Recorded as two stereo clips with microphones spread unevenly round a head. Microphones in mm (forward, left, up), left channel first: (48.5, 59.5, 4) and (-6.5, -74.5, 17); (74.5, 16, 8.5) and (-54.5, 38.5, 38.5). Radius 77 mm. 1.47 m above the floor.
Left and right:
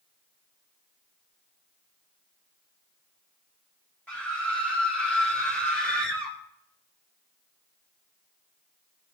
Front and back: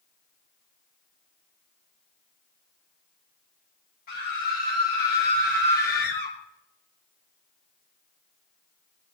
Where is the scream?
15° right, 6.5 m; by 6.3 s 20° right, 4.5 m.